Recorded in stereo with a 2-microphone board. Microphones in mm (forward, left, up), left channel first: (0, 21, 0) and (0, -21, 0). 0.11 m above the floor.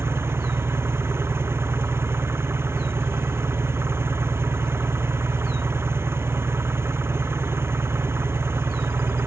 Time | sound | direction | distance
0.0 | an engine running | 80° right | ?